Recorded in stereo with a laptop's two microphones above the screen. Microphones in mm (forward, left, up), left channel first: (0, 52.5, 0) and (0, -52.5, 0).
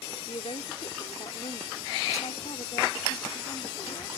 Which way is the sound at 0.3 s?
75° left (ahead or behind).